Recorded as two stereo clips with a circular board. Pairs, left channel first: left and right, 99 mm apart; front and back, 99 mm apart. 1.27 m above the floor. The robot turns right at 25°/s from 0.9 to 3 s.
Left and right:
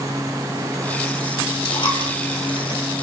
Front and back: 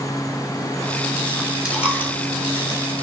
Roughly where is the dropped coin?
Left.